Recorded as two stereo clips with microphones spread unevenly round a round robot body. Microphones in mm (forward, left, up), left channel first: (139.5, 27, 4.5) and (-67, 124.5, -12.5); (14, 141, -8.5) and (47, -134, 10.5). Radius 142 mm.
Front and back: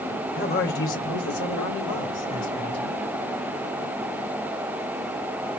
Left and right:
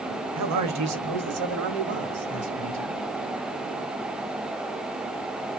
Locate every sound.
0.3 s a man speaking: 80° right, 1.2 m; by 3.0 s 40° right, 2.5 m